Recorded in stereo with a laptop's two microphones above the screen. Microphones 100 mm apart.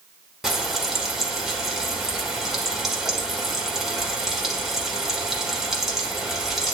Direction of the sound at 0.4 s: 5° right (ahead or behind).